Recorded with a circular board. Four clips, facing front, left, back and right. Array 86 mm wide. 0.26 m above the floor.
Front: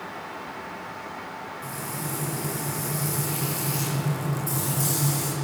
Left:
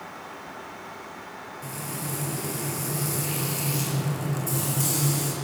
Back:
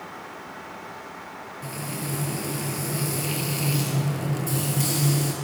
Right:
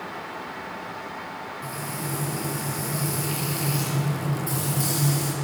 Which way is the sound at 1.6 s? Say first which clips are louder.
Right 1 dB, back 3 dB; 175° left.